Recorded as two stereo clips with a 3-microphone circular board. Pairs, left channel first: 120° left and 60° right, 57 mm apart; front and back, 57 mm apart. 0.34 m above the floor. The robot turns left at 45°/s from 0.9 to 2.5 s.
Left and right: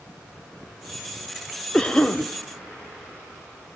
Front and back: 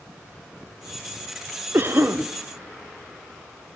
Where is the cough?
170° right, 1.5 m; by 2.2 s 170° left, 1.5 m.